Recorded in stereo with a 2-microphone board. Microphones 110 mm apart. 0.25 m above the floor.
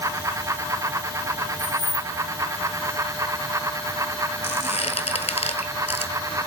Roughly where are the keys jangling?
Left.